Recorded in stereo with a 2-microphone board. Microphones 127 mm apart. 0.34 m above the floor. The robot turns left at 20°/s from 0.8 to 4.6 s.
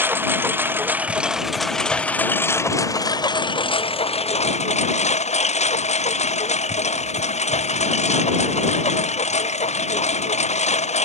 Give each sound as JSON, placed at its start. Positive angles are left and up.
{"t": 0.0, "sound": "a lawn mower", "azimuth_deg": -165}